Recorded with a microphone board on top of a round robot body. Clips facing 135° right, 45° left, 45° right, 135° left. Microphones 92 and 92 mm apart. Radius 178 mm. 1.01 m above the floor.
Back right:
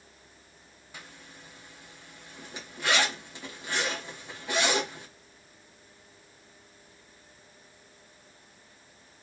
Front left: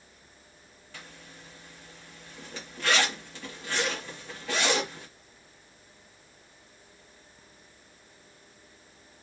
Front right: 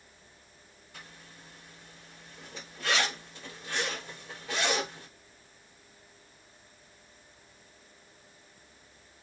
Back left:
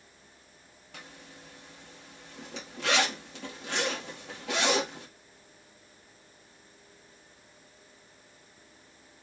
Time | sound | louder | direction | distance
0.9 | a zipper | even, back left 3 dB | 150° left | 1.4 m